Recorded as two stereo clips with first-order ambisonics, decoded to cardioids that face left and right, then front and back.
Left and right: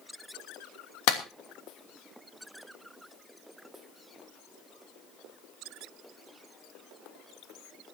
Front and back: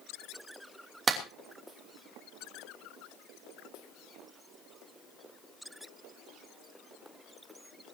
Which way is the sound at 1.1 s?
110° left.